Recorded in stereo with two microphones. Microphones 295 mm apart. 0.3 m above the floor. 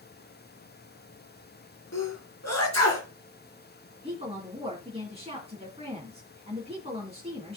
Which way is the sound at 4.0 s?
20° right (ahead or behind).